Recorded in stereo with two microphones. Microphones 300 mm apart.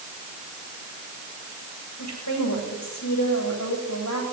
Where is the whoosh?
I don't hear a whoosh.